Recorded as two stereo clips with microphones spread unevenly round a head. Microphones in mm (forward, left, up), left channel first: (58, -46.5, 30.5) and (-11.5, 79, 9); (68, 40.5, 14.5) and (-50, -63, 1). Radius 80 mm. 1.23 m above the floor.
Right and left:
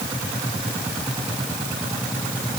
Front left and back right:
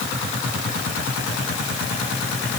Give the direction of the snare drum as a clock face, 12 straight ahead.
I don't hear a snare drum.